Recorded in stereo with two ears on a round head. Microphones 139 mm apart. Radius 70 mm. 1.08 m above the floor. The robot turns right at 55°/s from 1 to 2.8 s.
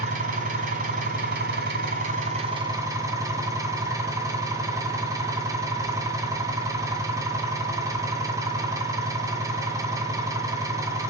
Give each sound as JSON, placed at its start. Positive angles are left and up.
{"t": 0.0, "sound": "an engine running", "azimuth_deg": -120, "distance_m": 2.5}